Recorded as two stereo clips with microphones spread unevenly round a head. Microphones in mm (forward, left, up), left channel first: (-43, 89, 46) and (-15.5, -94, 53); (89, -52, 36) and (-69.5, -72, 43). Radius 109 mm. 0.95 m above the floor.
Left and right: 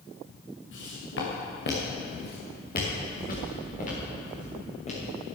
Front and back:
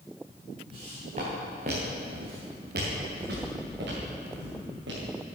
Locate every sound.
0.7 s footsteps: 120° left, 5 m; by 5.1 s 155° left, 7 m